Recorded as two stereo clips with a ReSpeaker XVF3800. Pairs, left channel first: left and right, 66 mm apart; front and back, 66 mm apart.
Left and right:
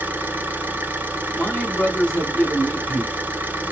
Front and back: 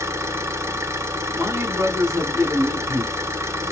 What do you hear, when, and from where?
0.0 s an engine running: 145° right, 0.7 m
1.4 s a man speaking: 155° left, 1.9 m